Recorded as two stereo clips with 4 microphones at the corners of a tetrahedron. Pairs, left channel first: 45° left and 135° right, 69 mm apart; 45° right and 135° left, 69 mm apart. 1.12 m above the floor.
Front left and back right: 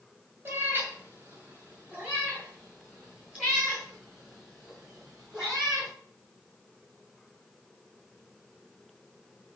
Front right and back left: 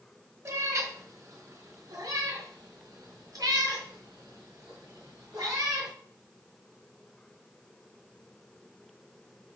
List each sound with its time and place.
0.5 s a cat meowing: 175° left, 1.9 m; by 5.9 s 150° left, 5.5 m